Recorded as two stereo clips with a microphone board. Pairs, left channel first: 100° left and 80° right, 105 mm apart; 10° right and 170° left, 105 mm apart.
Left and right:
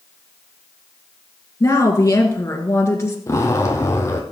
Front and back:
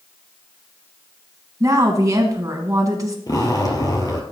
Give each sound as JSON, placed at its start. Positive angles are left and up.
{"t": 1.6, "sound": "a woman speaking", "azimuth_deg": 140, "distance_m": 1.7}
{"t": 3.3, "sound": "a zipper", "azimuth_deg": 40, "distance_m": 1.9}